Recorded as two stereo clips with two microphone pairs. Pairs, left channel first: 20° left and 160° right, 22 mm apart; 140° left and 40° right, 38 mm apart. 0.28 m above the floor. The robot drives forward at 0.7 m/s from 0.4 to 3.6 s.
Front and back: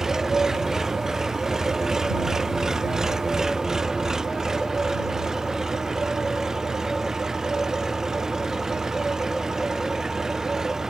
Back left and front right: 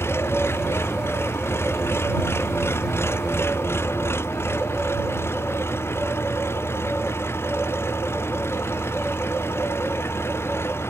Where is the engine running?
135° left; by 10.9 s 140° left.